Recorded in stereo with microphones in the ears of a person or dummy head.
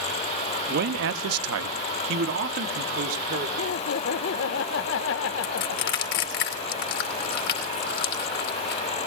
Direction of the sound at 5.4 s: 55° left (ahead or behind).